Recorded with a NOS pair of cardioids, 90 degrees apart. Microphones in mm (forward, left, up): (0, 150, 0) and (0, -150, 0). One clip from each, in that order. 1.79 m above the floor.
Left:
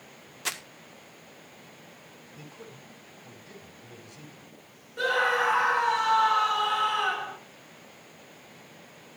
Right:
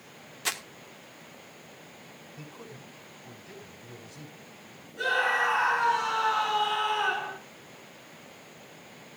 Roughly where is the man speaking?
Ahead.